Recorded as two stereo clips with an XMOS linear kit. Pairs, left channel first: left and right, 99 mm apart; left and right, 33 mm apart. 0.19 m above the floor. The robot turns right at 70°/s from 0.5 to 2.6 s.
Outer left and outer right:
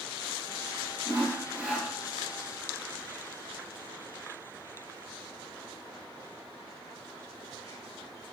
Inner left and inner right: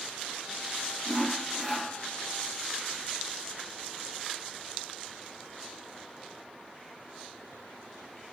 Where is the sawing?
55° right, 3 m; by 1.9 s 5° left, 3 m.